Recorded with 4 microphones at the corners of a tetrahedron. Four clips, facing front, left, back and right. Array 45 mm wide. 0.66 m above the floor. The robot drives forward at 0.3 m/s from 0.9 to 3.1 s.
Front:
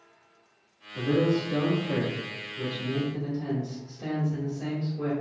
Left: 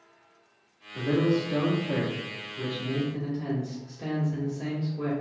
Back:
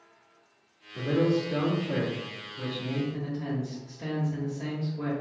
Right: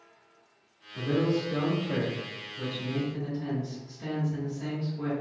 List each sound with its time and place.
0.9 s a man speaking: 85° left, 1.3 m; by 5.1 s 120° left, 1.4 m